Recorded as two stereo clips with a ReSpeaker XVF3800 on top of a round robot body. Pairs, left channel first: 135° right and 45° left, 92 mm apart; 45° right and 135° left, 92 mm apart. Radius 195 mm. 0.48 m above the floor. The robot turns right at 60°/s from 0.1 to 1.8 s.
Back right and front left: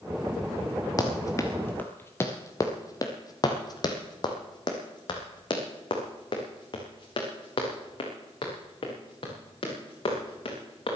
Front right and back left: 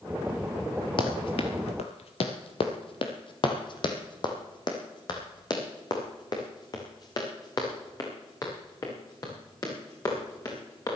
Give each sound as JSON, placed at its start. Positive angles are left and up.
{"t": 1.0, "sound": "running footsteps", "azimuth_deg": -85, "distance_m": 0.7}